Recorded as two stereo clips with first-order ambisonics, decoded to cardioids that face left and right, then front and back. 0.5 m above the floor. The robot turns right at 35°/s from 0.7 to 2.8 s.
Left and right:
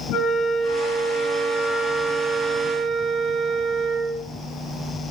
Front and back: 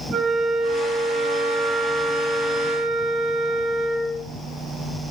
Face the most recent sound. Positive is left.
turn(degrees=-155)